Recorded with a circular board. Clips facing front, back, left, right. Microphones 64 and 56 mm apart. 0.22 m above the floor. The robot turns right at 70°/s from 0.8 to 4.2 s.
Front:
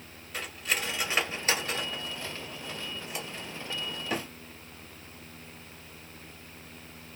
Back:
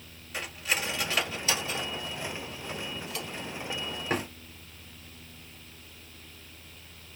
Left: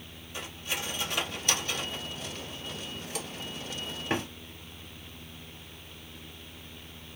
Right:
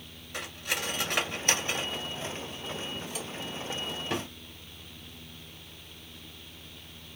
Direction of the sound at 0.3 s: 95° right.